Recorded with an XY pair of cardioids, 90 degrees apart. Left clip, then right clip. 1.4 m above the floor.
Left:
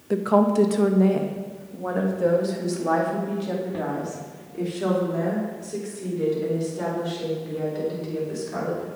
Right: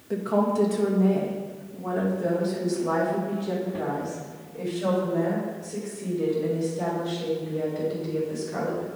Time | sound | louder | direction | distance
0.1 | a woman speaking | left 4 dB | 50° left | 0.8 m